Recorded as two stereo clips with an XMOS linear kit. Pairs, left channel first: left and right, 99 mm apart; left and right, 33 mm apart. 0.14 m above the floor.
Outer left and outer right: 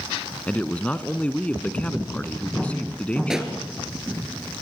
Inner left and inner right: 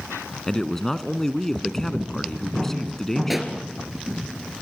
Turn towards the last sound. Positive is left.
turn(degrees=-5)  # may be behind; listen again after turning